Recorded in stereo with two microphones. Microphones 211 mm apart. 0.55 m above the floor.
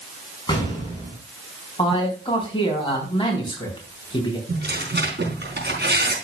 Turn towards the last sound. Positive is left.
turn(degrees=-55)  # may be behind; listen again after turning